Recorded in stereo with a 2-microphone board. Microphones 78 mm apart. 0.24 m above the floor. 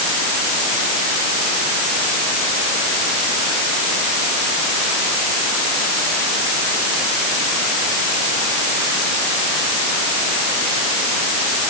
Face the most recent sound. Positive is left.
No sound to turn to.